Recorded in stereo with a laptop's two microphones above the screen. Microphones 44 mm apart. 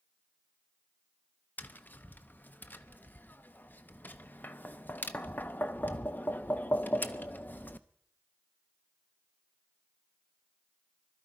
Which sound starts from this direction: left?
Tapping, at 1.6 s.